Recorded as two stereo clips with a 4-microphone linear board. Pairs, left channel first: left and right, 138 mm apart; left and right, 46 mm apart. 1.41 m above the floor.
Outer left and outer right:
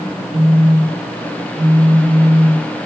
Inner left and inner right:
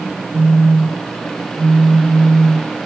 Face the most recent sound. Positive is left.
turn(degrees=-70)  # may be behind; listen again after turning